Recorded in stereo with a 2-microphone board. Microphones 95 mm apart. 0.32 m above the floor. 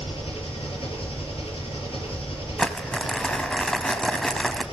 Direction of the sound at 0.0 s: 80° left.